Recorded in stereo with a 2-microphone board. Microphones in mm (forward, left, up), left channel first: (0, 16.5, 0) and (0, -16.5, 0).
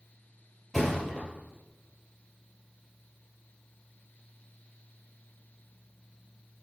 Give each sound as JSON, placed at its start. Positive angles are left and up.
{"t": 0.7, "sound": "a thud", "side_deg": -10, "distance_m": 3.0}